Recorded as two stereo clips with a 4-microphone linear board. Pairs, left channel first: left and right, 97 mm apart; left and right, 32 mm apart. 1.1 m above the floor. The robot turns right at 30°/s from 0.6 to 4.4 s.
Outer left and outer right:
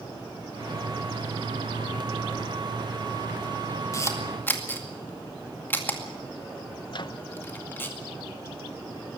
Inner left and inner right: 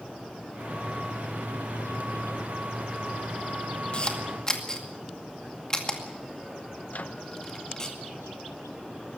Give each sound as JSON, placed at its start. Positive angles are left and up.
{"t": 3.9, "sound": "a camera shutter", "side_deg": 35, "distance_m": 2.0}
{"t": 6.9, "sound": "a microwave", "side_deg": 50, "distance_m": 0.6}